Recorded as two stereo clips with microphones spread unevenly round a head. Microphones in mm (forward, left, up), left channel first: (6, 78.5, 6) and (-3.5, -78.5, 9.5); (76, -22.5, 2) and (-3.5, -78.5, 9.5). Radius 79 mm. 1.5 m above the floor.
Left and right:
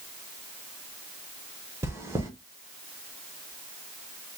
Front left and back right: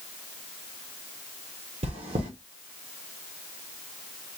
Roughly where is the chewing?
Behind.